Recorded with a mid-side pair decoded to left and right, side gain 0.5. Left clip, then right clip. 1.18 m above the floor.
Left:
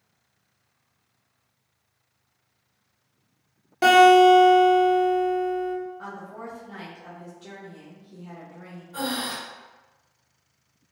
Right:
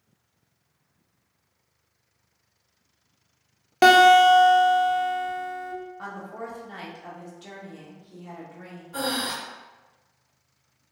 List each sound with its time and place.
3.8 s a guitar: 55° right, 0.7 m
6.0 s a woman speaking: 35° right, 1.0 m
8.9 s breathing: 45° right, 0.9 m